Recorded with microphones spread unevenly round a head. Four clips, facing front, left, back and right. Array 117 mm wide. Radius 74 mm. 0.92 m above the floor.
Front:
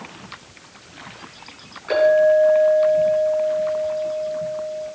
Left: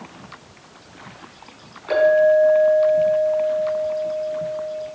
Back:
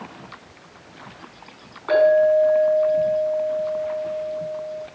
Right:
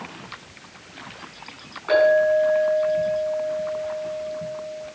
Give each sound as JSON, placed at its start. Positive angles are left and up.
{"t": 1.9, "sound": "a clink", "azimuth_deg": 180, "distance_m": 7.0}